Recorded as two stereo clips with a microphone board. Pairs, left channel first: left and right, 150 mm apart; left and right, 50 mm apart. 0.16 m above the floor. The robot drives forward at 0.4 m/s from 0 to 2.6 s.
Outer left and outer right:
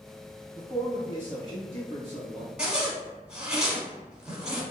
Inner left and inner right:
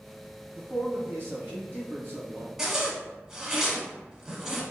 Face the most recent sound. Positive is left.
turn(degrees=-5)  # may be behind; listen again after turning